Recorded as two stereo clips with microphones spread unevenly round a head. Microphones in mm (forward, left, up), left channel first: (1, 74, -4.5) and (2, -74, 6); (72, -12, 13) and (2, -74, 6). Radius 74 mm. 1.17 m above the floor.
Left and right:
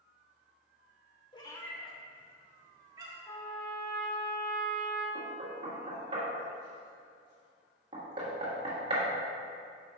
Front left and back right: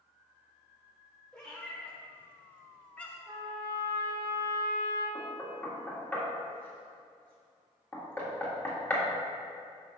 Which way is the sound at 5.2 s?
35° right.